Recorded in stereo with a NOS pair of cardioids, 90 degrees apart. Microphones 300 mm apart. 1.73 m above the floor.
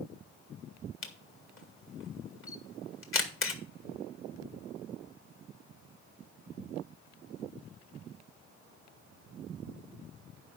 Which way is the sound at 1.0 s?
45° left.